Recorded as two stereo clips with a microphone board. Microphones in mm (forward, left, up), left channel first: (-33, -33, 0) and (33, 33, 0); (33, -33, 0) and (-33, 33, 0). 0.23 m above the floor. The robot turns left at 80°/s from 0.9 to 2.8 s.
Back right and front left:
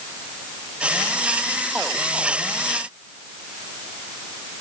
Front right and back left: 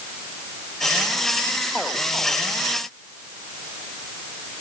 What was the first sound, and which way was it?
Only background noise.